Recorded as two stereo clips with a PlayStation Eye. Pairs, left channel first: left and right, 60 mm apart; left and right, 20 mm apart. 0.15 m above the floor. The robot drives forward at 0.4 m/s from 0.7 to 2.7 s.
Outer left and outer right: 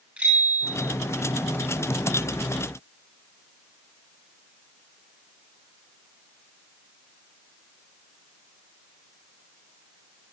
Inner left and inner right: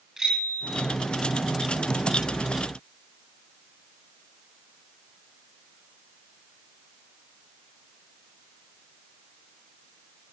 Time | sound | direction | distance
0.2 | a bicycle bell | 25° right (ahead or behind) | 9.5 m